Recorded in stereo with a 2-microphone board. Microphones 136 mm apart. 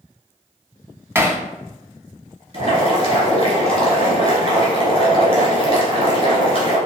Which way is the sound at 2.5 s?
50° right (ahead or behind).